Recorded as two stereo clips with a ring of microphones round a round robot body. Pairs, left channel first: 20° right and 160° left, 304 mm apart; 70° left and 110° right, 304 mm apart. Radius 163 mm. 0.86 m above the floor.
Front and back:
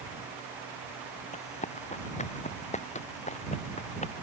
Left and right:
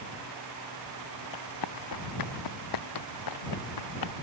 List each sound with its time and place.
1.3 s running footsteps: 45° left